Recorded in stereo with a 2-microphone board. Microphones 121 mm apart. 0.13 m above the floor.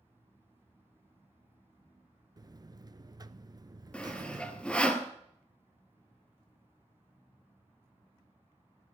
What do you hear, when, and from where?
2.4 s a buzzer: 35° right (ahead or behind), 0.5 m
3.9 s sawing: 10° left (ahead or behind), 1.3 m